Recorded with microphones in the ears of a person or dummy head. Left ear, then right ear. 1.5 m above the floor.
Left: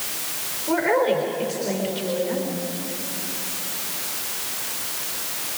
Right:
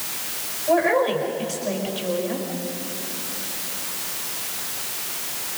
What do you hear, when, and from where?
0.7 s a woman speaking: centre (ahead or behind), 4.5 m